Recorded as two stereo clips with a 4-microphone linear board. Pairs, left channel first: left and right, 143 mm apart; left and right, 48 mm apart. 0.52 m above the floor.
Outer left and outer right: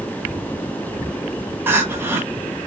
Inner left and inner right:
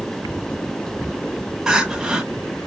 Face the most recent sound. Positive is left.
turn(degrees=-15)  # may be behind; listen again after turning